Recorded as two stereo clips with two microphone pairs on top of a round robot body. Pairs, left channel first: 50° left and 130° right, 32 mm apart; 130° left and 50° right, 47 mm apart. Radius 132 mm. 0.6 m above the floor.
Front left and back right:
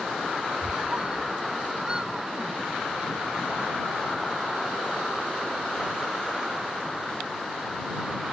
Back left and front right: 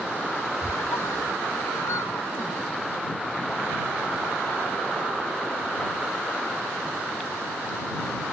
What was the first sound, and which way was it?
A squeak, 160° left.